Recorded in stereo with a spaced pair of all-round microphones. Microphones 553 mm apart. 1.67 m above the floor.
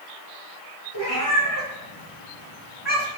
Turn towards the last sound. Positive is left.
turn(degrees=45)  # may be behind; listen again after turning